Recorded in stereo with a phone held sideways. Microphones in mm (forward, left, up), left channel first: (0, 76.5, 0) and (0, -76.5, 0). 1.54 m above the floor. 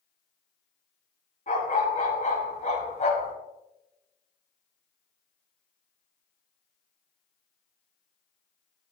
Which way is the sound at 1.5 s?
60° left (ahead or behind).